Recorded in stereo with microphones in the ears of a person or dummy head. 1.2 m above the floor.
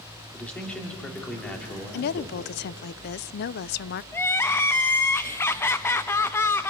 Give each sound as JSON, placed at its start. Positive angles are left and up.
{"t": 0.3, "sound": "a man speaking", "side_deg": 10, "distance_m": 2.5}
{"t": 1.9, "sound": "a woman speaking", "side_deg": 50, "distance_m": 0.5}
{"t": 4.1, "sound": "crying", "side_deg": 15, "distance_m": 0.6}